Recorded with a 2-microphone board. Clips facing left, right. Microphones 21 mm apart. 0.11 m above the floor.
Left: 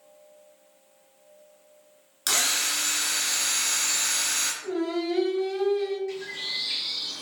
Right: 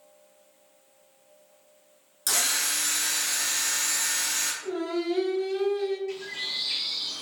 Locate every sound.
2.3 s a drill: 30° left (ahead or behind), 1.1 m
4.6 s singing: centre (ahead or behind), 1.8 m
6.1 s a bird: centre (ahead or behind), 0.9 m